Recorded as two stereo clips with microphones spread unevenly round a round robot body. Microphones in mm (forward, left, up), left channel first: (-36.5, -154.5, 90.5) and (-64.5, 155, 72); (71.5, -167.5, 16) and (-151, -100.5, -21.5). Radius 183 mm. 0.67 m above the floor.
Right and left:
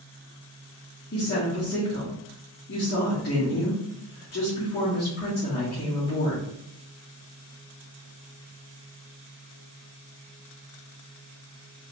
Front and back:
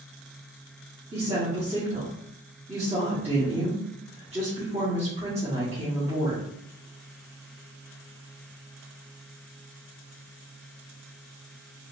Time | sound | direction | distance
1.1 | a woman speaking | 145° right | 1.8 m